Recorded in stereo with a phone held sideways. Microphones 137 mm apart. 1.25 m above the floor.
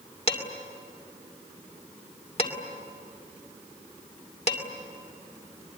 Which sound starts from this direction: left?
Dishes clattering, at 0.3 s.